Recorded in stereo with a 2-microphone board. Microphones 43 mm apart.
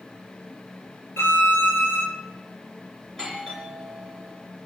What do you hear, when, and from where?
1.2 s a violin: 65° left (ahead or behind), 2.5 m
3.1 s a doorbell: 20° left (ahead or behind), 4 m